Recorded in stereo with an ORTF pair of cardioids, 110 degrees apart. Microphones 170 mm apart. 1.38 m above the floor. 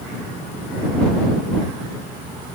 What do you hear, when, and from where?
Only background noise.